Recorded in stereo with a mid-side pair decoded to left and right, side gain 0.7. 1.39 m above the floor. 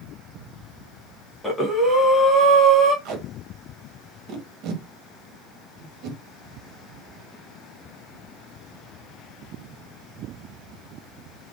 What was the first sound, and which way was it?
Breathing, 10° left.